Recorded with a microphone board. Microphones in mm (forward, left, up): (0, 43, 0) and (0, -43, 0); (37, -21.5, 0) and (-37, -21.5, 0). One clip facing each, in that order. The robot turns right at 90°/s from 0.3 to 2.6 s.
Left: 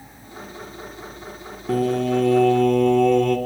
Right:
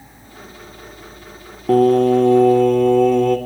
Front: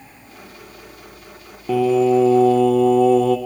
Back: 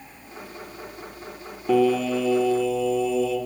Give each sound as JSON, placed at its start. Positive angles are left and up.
{"t": 1.7, "sound": "singing", "azimuth_deg": -90, "distance_m": 1.8}